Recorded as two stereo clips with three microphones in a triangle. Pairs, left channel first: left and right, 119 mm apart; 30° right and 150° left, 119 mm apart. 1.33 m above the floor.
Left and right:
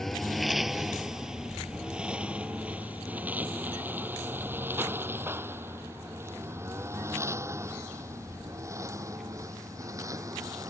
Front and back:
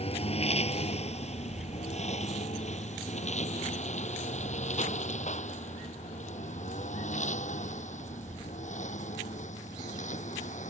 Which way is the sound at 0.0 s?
5° left.